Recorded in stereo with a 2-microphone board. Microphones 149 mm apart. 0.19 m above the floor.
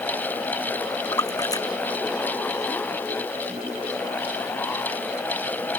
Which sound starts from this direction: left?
A splash, at 1.1 s.